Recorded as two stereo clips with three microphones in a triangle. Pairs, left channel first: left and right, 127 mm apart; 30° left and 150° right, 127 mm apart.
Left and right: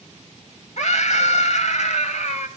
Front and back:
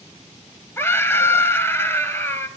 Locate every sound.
0.8 s a scream: 100° left, 2 m